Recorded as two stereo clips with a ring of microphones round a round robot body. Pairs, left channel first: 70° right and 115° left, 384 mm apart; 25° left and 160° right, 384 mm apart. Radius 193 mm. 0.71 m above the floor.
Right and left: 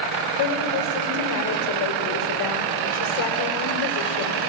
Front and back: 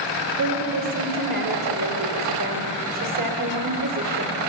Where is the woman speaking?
115° right, 2.5 m.